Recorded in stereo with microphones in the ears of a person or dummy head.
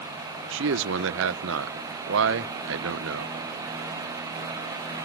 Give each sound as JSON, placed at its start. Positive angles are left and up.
{"t": 0.5, "sound": "a man speaking", "side_deg": -75, "distance_m": 0.8}